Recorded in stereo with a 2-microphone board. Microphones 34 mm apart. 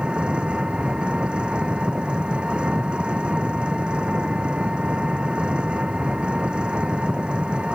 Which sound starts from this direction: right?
An engine running, at 0.0 s.